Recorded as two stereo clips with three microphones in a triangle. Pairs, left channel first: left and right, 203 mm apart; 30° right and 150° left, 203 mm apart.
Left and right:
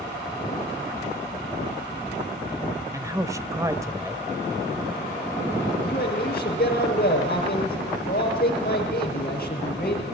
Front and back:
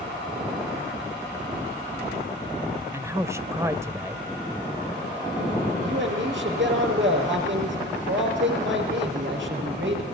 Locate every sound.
2.9 s a man speaking: 145° right, 1.1 m
5.8 s a man speaking: 130° left, 6.5 m